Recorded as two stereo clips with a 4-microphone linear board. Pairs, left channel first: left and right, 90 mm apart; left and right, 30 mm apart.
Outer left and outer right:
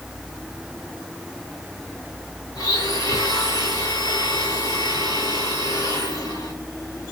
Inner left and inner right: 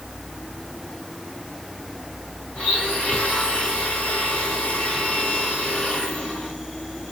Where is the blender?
45° left (ahead or behind), 4 m.